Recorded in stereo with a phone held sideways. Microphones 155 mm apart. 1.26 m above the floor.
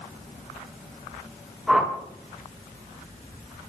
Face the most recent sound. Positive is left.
turn(degrees=0)  # may be behind; listen again after turning